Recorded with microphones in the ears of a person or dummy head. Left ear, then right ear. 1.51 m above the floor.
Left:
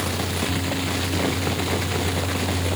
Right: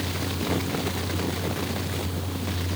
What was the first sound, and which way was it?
Only background noise.